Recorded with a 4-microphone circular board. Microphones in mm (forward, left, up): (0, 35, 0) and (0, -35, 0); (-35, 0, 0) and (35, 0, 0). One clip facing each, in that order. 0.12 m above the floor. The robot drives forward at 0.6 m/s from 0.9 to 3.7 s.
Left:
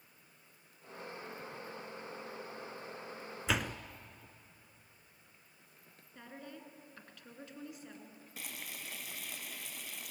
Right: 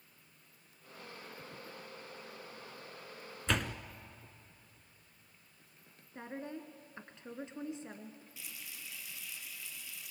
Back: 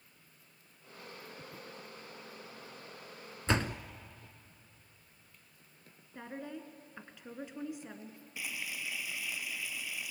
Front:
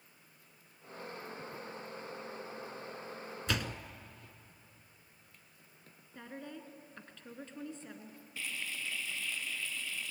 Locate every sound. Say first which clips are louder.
3.5 s a door slam: even, back 5 dB; 170° left, 0.8 m; by 3.8 s 175° left, 0.9 m
6.2 s a woman speaking: right 6 dB, back 3 dB; 115° right, 1.6 m
8.4 s frying: left 4 dB, even; 105° left, 0.7 m